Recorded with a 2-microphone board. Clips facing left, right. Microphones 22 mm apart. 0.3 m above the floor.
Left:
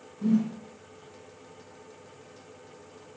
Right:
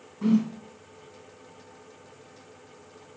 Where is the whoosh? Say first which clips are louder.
Right 2 dB; 40° right (ahead or behind), 3 m.